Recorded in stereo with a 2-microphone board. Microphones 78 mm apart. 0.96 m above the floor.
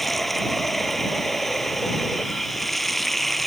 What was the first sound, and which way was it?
Running water, centre (ahead or behind).